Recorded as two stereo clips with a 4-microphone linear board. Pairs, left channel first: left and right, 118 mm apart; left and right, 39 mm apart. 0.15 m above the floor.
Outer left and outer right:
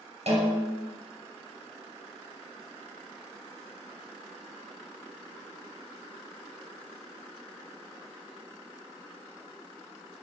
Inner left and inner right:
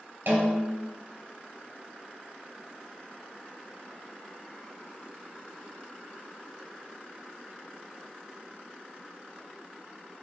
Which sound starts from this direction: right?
A snare drum, at 0.3 s.